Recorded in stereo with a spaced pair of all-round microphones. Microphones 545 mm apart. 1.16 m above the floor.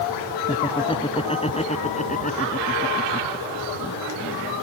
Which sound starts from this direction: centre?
Laughter, at 0.5 s.